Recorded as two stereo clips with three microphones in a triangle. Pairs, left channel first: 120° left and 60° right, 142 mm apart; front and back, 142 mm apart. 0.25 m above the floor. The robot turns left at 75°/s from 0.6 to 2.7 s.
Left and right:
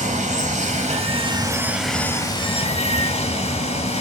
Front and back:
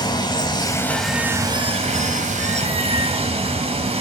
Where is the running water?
55° right, 0.8 m; by 4.0 s 150° left, 0.8 m.